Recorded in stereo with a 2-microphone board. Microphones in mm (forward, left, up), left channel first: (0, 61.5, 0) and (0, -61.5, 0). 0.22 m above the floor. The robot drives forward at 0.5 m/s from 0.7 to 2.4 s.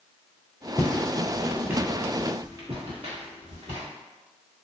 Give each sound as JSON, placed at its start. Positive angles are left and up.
{"t": 0.8, "sound": "footsteps", "side_deg": 20, "distance_m": 0.6}